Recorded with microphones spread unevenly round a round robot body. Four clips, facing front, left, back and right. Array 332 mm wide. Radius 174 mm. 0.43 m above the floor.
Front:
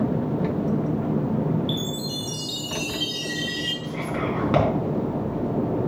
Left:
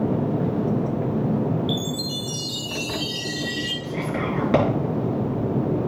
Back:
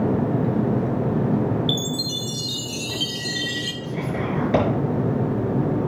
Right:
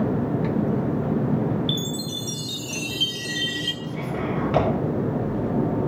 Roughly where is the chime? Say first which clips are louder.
Left 2 dB, back 2 dB; behind right.